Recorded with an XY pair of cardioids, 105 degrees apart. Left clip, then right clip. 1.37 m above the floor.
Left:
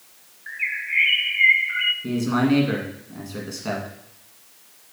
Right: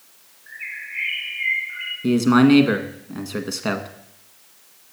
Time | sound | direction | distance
0.5 | a bird | 65° left | 1.2 m
2.0 | a man speaking | 60° right | 1.6 m